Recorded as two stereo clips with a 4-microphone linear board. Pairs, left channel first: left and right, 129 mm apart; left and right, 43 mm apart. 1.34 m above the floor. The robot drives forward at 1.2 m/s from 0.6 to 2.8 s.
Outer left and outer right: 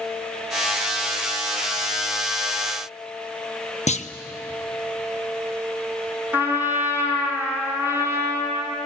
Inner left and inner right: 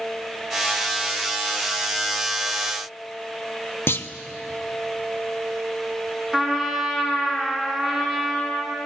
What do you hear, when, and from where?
3.9 s a clunk: 60° left (ahead or behind), 0.9 m
6.3 s a trumpet: 15° right (ahead or behind), 5 m